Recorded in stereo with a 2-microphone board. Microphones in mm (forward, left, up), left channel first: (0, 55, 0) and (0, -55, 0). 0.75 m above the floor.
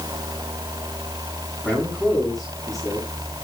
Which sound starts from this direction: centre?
A man speaking, at 1.6 s.